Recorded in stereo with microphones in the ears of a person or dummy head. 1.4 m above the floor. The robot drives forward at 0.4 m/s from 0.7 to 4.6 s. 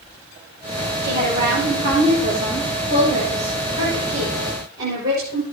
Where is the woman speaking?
70° right (ahead or behind), 7 m; by 5.4 s 80° right, 6.5 m.